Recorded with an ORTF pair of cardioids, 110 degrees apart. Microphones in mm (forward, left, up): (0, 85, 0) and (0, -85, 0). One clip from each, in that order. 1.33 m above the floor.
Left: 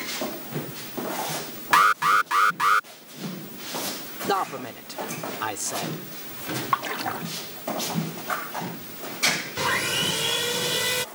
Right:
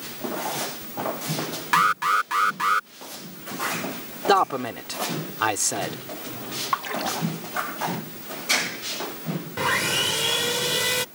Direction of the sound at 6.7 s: 10° left.